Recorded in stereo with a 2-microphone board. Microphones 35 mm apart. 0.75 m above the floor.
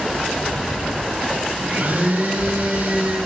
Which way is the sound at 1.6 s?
80° right.